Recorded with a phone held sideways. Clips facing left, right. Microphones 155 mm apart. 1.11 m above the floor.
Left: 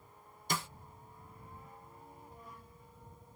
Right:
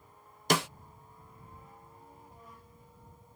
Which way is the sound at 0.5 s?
80° right.